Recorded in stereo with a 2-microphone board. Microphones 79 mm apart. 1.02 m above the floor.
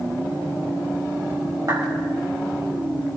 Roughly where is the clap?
Right.